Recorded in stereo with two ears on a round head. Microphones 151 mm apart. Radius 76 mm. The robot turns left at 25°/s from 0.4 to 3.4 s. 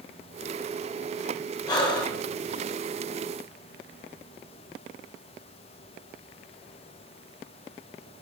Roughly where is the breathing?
Left.